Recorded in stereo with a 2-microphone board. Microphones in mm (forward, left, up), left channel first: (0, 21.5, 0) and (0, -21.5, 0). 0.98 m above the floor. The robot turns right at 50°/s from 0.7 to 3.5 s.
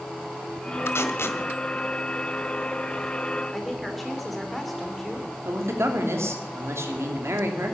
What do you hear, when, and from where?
0.9 s tape being pulled: 70° left (ahead or behind), 1.5 m; by 1.4 s 65° left (ahead or behind), 1.5 m
3.5 s a woman speaking: centre (ahead or behind), 3 m
5.5 s a man speaking: 75° right (ahead or behind), 2.5 m